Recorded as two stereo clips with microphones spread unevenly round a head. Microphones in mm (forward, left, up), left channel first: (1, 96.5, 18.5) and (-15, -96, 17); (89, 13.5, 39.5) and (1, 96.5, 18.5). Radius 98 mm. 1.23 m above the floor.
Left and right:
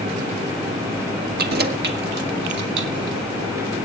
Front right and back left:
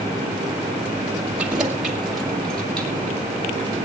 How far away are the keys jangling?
About 1.4 m.